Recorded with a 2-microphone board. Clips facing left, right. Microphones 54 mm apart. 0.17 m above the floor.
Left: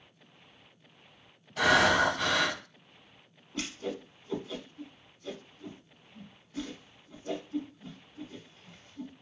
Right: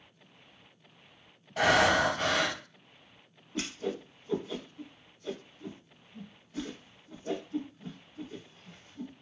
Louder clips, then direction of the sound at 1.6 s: Even; 35° right (ahead or behind).